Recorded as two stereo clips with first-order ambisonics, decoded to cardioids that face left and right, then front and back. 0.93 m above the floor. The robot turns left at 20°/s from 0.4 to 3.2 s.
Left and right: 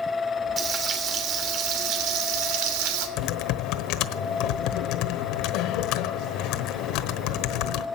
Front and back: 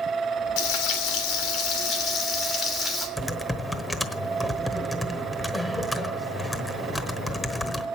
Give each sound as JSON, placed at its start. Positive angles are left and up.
{"t": 0.6, "sound": "frying", "azimuth_deg": -25, "distance_m": 3.0}
{"t": 3.2, "sound": "typing on a keyboard", "azimuth_deg": 85, "distance_m": 1.1}